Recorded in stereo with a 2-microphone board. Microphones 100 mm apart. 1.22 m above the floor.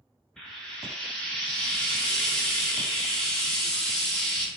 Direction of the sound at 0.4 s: 5° left (ahead or behind).